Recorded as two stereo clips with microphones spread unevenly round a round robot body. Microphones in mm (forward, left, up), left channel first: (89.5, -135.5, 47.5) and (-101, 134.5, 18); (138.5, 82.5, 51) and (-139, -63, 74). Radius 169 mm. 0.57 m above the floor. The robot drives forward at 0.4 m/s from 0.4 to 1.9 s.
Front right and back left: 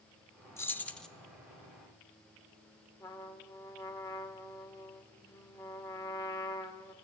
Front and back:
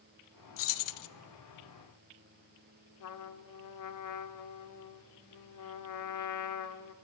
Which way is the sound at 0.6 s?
30° left.